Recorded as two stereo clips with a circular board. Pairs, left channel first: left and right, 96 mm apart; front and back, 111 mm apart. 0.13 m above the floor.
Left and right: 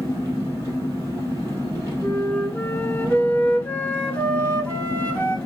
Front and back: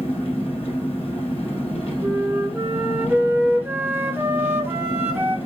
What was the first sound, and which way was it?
An engine running, 30° right.